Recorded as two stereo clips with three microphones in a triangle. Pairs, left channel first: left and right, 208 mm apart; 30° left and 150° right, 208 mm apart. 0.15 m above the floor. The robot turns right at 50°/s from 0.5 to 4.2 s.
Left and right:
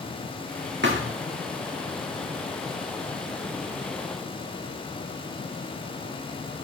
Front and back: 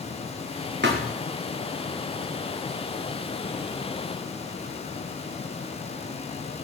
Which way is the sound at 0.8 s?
120° right.